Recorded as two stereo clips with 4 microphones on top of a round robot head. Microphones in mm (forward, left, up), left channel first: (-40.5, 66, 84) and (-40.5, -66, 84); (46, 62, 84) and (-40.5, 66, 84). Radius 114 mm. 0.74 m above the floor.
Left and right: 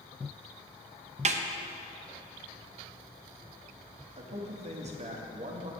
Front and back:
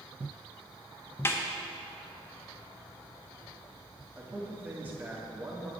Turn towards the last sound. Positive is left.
turn(degrees=-115)